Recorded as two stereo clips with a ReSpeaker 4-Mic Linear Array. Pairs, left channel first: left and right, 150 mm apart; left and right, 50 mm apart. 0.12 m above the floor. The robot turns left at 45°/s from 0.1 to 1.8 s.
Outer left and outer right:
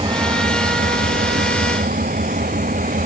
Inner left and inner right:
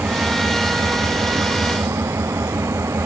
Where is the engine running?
35° right; by 3.1 s 110° right.